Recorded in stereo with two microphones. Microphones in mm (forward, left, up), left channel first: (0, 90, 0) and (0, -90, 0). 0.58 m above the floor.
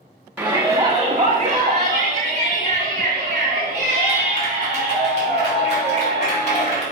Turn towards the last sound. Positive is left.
turn(degrees=-40)  # may be behind; listen again after turning